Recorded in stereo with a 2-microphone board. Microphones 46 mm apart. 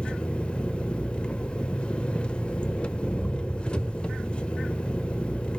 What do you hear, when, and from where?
0.0 s an engine running: 25° left (ahead or behind), 0.8 m